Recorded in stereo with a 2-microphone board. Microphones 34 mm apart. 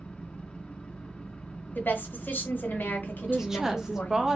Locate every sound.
0.0 s an engine running: 35° left (ahead or behind), 1.0 m
1.8 s a woman speaking: 65° left (ahead or behind), 1.8 m
3.3 s a woman speaking: 15° right (ahead or behind), 1.0 m